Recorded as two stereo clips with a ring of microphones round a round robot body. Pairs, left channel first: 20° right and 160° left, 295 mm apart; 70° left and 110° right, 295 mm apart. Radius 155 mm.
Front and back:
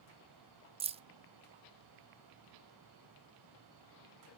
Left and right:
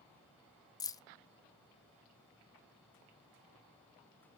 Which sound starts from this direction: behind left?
Keys jangling, at 0.8 s.